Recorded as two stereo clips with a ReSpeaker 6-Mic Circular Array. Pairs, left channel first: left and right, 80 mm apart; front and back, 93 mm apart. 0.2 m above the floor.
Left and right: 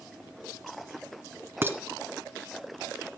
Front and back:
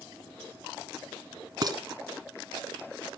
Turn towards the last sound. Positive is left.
turn(degrees=-145)